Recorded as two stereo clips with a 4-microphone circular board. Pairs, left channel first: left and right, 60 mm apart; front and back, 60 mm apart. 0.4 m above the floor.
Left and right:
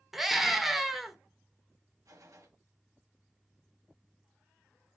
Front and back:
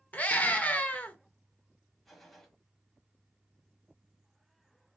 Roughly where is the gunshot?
Right.